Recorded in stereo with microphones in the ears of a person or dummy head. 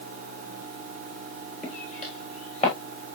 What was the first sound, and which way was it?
Footsteps, 45° left (ahead or behind).